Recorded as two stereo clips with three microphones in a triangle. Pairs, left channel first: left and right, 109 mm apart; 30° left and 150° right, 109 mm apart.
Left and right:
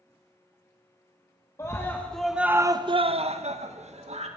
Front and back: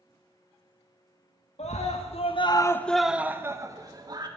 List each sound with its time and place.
1.6 s a scream: 30° left, 1.4 m; by 4.3 s 100° right, 2.0 m